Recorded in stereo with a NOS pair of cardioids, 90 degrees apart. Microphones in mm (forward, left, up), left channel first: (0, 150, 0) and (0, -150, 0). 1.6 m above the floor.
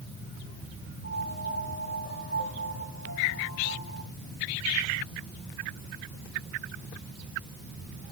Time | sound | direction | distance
1.0 | a piano | 55° left | 3.5 m